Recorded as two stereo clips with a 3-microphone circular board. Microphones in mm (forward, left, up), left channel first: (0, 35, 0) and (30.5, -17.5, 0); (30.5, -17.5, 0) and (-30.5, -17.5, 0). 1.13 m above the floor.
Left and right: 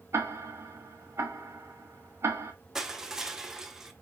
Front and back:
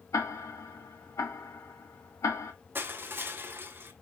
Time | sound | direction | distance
0.1 | ticking | 20° right | 1.1 m
2.8 | crushing | 140° right | 0.8 m